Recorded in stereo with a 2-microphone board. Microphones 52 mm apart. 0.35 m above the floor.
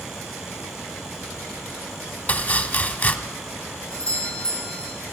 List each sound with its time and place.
2.3 s chopping: 35° left (ahead or behind), 0.7 m
3.9 s a doorbell: 20° left (ahead or behind), 4 m